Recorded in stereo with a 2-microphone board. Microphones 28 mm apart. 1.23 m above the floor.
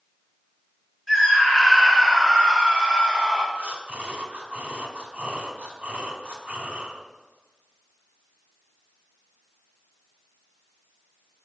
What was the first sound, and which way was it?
A scream, 5° right (ahead or behind).